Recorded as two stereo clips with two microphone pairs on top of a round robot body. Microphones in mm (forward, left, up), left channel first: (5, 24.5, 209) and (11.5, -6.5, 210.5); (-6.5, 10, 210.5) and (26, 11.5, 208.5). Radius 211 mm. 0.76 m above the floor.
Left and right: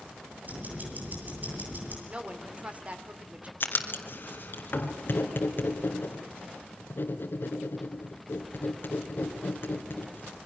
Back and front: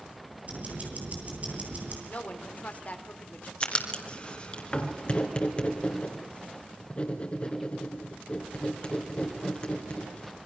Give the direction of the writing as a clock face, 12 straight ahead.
8 o'clock.